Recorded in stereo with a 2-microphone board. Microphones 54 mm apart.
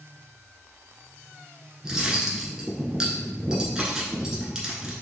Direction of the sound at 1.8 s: 15° right (ahead or behind).